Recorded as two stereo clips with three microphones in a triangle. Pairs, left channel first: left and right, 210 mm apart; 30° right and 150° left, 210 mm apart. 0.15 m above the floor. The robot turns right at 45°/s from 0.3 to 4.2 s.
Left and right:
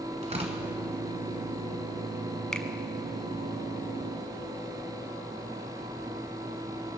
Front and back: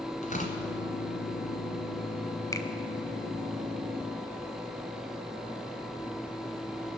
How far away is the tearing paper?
About 1.8 m.